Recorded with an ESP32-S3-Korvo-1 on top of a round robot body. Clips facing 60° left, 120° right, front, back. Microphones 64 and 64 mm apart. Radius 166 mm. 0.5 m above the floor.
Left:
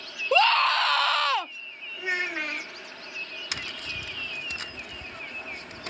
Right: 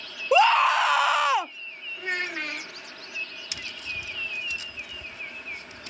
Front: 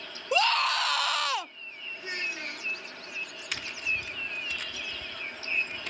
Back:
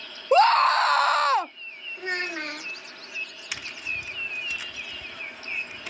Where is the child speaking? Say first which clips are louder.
Left 1 dB, back 6 dB; 145° left.